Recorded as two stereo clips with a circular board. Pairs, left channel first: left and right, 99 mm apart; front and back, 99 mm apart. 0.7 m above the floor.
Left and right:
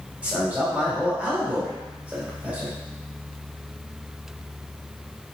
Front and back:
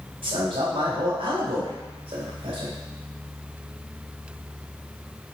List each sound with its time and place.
0.2 s a man speaking: 165° right, 1.8 m